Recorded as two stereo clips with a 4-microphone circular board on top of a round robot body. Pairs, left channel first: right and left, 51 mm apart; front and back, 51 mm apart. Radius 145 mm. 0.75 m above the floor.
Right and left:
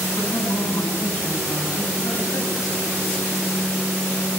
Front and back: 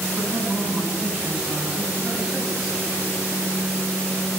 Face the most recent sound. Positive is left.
turn(degrees=-85)